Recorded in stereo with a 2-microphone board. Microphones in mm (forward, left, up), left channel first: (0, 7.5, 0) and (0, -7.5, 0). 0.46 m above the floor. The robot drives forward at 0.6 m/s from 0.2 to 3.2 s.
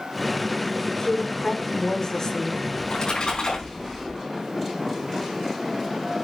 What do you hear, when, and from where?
0.9 s a woman speaking: 40° left (ahead or behind), 1.4 m
2.8 s a splash: 70° left (ahead or behind), 5 m